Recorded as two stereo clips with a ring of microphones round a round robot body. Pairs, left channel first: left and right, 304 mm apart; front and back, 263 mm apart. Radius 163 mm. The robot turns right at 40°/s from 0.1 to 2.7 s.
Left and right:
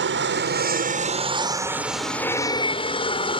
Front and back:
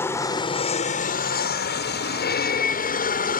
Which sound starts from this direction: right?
An aircraft, at 0.0 s.